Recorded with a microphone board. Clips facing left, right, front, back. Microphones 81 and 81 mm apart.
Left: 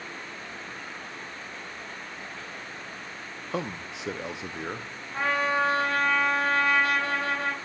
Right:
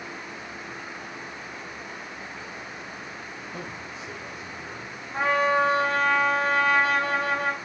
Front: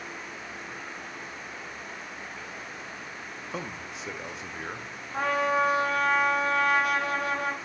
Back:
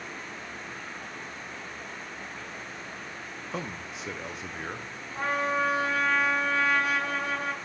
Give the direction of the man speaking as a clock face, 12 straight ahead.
9 o'clock.